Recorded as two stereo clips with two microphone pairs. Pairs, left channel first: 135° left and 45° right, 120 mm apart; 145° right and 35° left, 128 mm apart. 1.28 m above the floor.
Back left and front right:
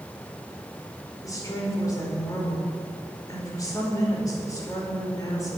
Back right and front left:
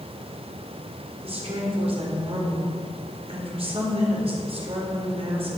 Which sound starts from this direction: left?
A woman speaking, at 1.2 s.